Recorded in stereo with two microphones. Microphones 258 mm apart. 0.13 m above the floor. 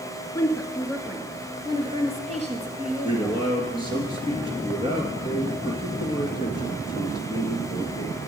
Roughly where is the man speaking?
Right.